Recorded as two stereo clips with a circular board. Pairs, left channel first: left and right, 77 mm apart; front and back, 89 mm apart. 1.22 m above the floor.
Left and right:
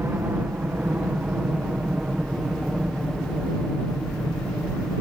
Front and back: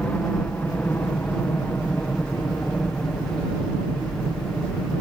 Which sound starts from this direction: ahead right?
A helicopter, at 0.0 s.